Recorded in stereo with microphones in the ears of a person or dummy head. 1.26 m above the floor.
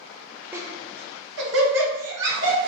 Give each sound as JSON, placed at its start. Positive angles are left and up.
{"t": 0.5, "sound": "laughter", "side_deg": -15, "distance_m": 0.6}